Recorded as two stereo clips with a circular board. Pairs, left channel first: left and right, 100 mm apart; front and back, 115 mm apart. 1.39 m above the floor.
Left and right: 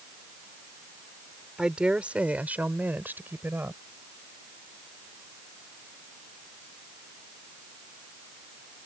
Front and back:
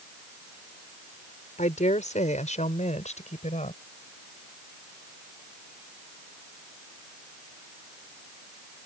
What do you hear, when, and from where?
1.6 s a woman speaking: 5° right; by 3.8 s 20° right